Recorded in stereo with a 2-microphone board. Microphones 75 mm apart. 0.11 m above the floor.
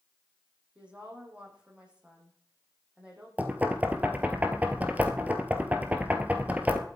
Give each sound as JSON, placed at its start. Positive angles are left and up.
{"t": 0.8, "sound": "a woman speaking", "side_deg": -15, "distance_m": 6.0}
{"t": 3.4, "sound": "knocking", "side_deg": -20, "distance_m": 1.4}